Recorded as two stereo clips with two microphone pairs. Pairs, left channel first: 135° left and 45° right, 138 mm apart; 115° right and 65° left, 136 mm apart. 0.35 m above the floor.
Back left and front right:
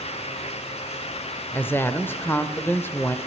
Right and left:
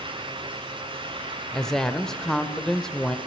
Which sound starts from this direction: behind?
A woman speaking, at 1.5 s.